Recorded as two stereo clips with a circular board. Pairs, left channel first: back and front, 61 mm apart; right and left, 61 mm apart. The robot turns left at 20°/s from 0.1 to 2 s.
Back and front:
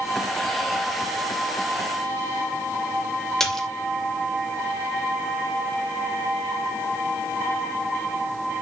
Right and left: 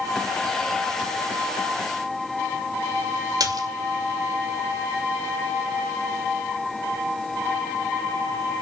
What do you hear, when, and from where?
3.4 s a splash: 95° left, 2.5 m